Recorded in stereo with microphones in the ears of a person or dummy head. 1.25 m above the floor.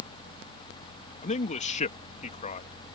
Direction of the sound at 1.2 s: 35° left (ahead or behind).